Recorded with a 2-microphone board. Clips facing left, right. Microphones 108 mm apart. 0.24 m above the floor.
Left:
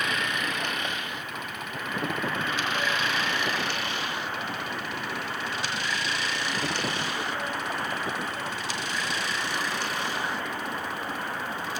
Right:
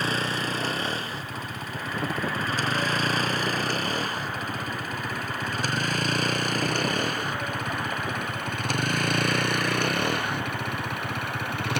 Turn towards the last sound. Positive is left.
turn(degrees=-70)  # may be behind; listen again after turning